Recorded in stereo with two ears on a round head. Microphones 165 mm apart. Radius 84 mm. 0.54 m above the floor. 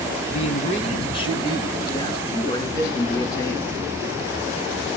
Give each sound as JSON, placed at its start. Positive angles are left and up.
{"t": 0.3, "sound": "a man speaking", "side_deg": 40, "distance_m": 5.5}